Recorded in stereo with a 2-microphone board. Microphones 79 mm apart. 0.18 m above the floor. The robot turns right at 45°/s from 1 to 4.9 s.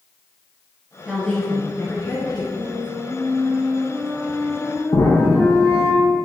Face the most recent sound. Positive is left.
turn(degrees=85)